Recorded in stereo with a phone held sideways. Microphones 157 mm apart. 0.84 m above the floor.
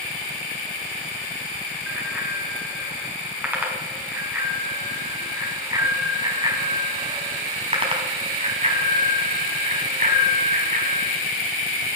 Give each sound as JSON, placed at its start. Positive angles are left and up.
{"t": 1.9, "sound": "a bicycle bell", "side_deg": -5, "distance_m": 6.0}